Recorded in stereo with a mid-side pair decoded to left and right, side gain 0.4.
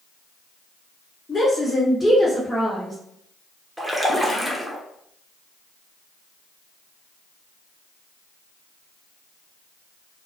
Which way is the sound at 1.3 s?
40° left.